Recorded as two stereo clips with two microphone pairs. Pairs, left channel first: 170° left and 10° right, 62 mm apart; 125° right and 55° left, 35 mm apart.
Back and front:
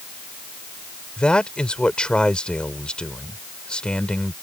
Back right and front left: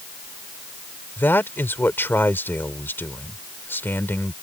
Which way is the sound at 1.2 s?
115° right.